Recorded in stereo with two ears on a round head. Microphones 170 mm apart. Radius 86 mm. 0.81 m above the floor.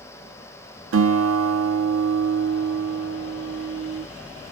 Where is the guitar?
75° right (ahead or behind), 0.7 m.